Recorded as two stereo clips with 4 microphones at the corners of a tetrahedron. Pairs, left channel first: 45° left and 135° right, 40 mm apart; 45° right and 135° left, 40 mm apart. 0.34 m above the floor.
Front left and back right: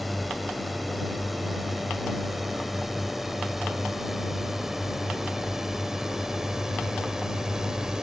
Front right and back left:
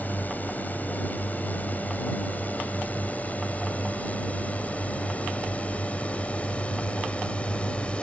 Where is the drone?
45° right; by 8.0 s 75° right.